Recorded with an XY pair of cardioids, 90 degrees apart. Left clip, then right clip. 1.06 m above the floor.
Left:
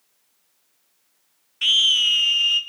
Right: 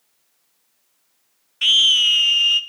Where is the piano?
I don't hear a piano.